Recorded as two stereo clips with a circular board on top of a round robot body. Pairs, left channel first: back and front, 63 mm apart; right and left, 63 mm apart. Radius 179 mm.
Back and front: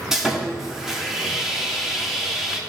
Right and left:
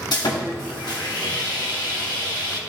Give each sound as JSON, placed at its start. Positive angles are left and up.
{"t": 0.1, "sound": "sawing", "azimuth_deg": -85, "distance_m": 1.2}